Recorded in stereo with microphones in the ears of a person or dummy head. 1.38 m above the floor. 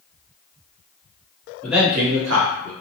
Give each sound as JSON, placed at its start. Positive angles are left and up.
{"t": 1.6, "sound": "a man speaking", "side_deg": 10, "distance_m": 0.6}